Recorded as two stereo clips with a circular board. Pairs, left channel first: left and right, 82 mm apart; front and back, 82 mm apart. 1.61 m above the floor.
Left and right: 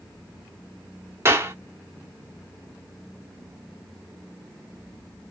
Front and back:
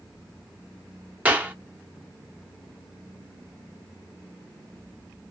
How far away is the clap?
About 0.6 m.